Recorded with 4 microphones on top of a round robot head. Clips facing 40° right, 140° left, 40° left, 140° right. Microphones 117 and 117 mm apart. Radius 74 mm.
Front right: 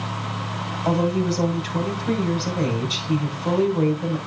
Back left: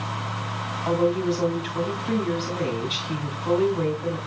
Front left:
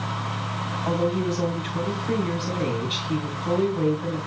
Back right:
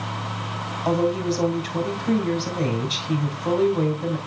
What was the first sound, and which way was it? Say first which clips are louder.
A woman speaking: even, back right 3 dB; 90° right.